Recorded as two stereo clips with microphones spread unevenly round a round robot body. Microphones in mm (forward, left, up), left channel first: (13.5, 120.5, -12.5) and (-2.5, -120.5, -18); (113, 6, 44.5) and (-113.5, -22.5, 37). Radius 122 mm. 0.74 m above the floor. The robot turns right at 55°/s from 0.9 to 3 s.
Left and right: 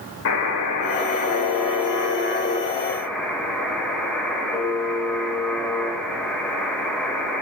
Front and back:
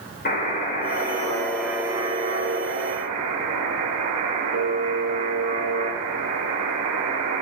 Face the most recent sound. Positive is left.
turn(degrees=175)